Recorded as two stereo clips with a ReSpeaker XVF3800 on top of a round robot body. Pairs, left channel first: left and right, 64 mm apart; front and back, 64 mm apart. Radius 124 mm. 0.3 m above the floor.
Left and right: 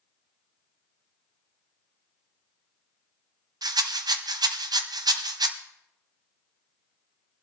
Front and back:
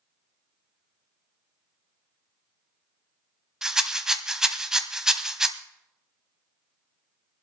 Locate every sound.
3.6 s a rattle: 100° right, 0.8 m